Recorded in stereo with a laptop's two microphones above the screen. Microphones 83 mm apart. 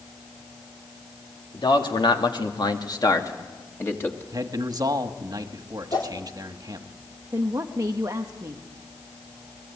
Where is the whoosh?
70° left (ahead or behind), 2.5 m.